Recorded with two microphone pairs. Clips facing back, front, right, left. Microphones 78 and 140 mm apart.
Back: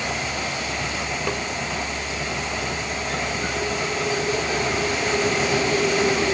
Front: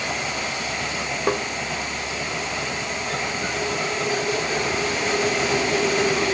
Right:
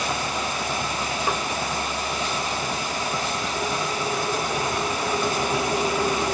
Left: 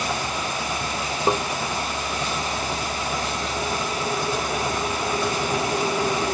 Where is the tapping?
45° left.